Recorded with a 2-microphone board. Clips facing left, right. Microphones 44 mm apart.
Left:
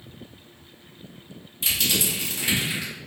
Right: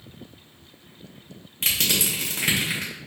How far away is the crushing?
About 1.1 m.